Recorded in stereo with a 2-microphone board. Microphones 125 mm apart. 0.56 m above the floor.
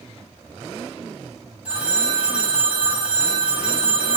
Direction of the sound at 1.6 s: 10° right (ahead or behind).